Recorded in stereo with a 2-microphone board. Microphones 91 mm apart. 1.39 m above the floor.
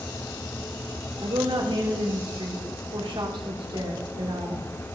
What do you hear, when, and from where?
1.2 s a woman speaking: 75° right (ahead or behind), 3 m